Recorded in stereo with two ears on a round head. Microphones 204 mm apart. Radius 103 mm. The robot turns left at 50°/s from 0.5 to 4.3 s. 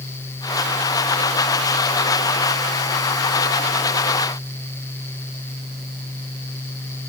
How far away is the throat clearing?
No throat clearing in this recording.